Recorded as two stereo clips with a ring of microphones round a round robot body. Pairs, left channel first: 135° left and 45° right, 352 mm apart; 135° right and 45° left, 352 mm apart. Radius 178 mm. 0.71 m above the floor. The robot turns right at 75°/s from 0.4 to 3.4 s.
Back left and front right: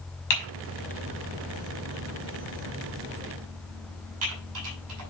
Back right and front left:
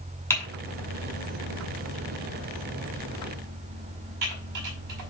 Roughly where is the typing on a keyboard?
Behind left.